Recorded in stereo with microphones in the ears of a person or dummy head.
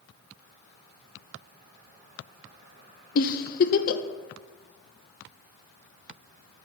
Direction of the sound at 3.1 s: 50° left (ahead or behind).